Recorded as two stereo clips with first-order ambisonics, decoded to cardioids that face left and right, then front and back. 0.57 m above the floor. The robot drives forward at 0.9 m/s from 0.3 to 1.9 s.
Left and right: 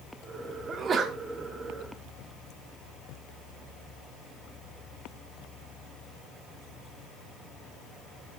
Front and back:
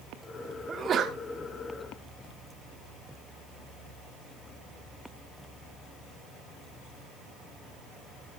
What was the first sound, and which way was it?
A sneeze, 130° right.